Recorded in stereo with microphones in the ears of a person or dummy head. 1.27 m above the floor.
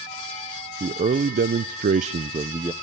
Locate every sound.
0.8 s a man speaking: 30° right (ahead or behind), 0.9 m; by 2.7 s 15° right (ahead or behind), 0.7 m